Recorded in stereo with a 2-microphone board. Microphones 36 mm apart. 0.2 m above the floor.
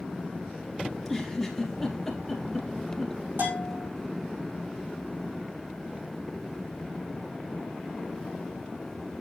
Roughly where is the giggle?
Centre.